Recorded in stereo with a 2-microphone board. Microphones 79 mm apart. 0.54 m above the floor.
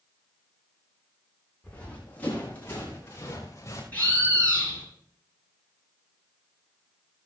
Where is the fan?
No fan in this recording.